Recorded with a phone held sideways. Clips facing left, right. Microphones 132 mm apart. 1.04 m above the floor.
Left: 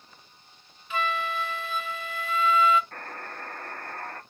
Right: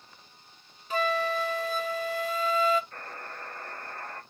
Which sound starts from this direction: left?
A buzzer, at 2.9 s.